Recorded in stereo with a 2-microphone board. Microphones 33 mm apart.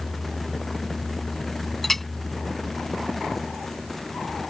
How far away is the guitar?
I don't hear a guitar.